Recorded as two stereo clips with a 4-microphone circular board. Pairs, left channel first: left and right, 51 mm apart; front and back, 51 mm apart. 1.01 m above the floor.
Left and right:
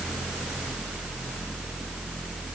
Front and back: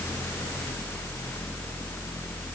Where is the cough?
No cough in this recording.